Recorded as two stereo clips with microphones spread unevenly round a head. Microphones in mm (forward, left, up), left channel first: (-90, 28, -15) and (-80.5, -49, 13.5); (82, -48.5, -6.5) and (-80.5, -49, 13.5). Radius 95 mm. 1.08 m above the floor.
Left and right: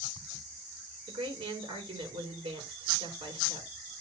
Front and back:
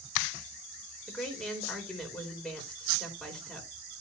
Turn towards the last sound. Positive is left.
turn(degrees=-90)